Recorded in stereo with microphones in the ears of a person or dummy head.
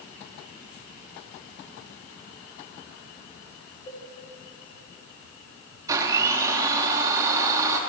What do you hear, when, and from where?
3.9 s a cowbell: 25° left (ahead or behind), 1.6 m
5.9 s a blender: 15° right (ahead or behind), 1.0 m